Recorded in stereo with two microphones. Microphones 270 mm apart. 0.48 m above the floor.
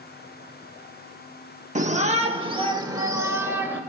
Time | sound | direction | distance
1.8 | a shout | 25° right (ahead or behind) | 0.8 m